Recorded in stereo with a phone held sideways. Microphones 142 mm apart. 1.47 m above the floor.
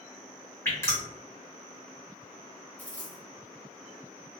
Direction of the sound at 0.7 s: 20° left (ahead or behind).